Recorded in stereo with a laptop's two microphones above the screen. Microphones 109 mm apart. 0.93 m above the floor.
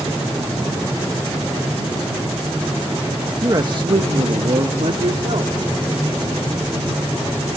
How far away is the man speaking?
About 1.0 m.